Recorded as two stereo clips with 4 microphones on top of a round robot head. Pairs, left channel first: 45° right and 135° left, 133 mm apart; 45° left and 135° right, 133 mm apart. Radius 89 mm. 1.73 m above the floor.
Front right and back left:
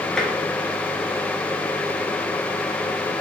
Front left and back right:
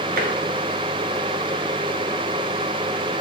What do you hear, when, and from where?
0.2 s tapping: 135° right, 2 m